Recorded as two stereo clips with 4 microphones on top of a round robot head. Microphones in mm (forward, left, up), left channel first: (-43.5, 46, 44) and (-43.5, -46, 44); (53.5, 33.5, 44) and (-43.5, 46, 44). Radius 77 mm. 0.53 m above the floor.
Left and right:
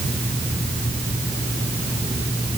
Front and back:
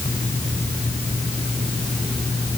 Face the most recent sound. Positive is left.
No sound to turn to.